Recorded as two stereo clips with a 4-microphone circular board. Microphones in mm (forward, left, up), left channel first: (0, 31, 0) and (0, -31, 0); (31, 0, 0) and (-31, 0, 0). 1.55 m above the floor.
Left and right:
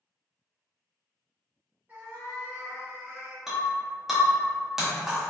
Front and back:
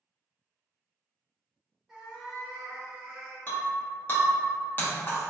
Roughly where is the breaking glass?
Ahead.